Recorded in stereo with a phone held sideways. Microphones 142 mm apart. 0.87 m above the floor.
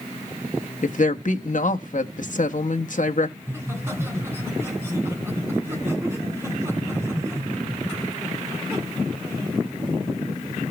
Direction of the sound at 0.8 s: 65° left (ahead or behind).